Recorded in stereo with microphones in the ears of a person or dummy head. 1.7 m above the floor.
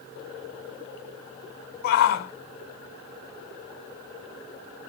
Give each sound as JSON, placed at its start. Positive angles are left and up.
{"t": 1.8, "sound": "a shout", "side_deg": 50, "distance_m": 1.3}